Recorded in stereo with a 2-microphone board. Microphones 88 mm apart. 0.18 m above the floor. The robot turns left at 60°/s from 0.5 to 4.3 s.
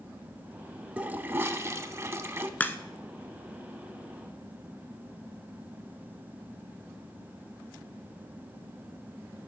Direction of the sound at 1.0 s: 35° right.